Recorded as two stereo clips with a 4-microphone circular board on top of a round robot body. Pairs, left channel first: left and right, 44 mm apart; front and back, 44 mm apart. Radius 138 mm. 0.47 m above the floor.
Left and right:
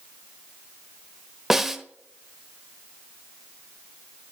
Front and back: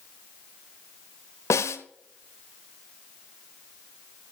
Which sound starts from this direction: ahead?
A snare drum, at 1.5 s.